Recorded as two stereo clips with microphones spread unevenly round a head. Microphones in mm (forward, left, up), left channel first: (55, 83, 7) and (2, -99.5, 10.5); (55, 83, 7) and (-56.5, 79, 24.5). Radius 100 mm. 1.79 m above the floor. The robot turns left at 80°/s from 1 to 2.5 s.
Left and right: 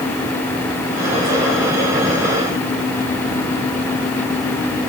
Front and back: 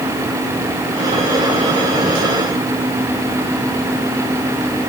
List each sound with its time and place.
Only background noise.